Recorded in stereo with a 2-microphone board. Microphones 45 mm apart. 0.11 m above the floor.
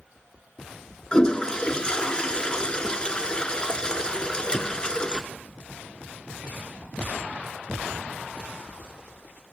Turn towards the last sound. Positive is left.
turn(degrees=25)  # may be behind; listen again after turning